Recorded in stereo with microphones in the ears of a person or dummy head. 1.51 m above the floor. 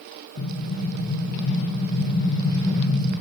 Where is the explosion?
80° left, 1.5 m.